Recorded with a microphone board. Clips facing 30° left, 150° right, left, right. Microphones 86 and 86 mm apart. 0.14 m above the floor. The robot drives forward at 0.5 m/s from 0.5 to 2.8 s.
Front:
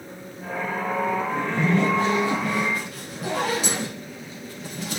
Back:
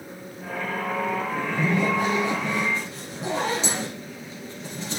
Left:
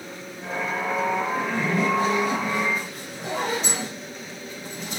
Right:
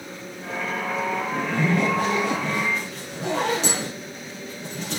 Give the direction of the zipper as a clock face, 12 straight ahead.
2 o'clock.